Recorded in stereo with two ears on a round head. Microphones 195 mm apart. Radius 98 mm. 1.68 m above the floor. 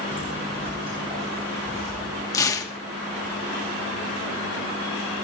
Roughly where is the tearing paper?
Centre.